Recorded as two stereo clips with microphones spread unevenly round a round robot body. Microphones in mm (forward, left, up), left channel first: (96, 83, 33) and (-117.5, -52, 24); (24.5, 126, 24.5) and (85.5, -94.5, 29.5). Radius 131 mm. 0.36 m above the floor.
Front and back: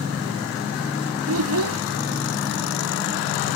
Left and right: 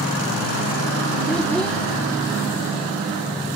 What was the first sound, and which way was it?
A child speaking, 170° right.